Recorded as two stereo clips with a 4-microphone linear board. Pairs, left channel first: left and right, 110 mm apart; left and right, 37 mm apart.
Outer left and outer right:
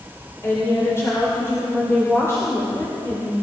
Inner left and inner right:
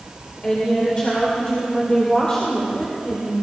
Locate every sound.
0.4 s a woman speaking: 25° left (ahead or behind), 2.5 m